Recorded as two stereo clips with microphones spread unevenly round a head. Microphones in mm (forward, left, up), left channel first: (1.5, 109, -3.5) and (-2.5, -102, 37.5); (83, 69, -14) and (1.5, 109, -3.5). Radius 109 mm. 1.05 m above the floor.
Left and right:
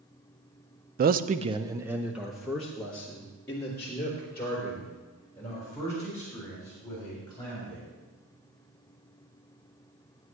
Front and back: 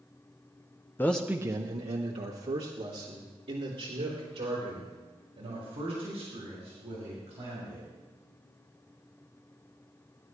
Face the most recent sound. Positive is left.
turn(degrees=165)